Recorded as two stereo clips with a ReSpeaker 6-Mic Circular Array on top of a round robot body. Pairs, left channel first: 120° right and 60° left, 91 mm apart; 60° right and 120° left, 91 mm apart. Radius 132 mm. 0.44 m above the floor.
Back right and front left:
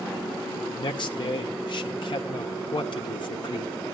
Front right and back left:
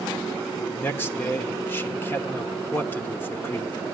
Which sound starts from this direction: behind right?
A man speaking, at 0.8 s.